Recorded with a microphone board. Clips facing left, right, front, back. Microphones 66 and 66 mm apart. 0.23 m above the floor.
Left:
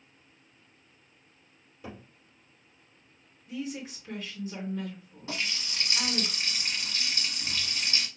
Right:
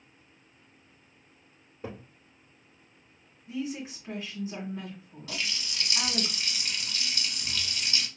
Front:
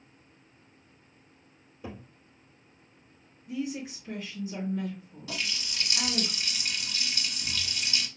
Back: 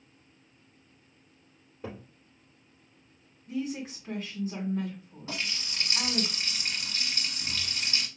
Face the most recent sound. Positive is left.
turn(degrees=140)